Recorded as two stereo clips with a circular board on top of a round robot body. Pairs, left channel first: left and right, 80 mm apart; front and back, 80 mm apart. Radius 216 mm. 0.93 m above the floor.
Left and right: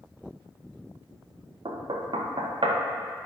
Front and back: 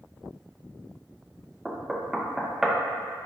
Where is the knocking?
95° right, 0.9 m.